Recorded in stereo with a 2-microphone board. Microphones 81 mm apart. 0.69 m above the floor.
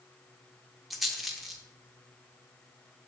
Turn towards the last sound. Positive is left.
turn(degrees=0)  # may be behind; listen again after turning